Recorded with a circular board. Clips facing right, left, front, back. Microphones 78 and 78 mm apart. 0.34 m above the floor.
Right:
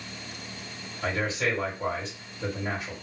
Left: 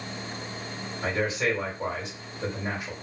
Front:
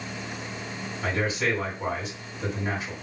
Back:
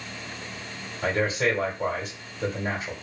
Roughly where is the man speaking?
Behind.